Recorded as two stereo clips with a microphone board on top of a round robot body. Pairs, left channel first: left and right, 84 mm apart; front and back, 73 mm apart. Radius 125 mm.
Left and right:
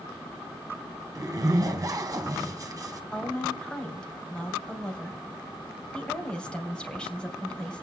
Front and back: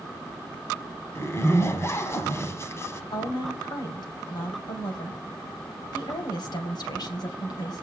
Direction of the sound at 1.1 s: 45° right.